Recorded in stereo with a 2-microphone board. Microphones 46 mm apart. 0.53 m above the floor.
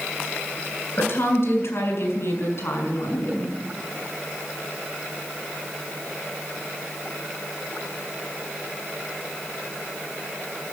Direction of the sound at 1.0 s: 60° left (ahead or behind).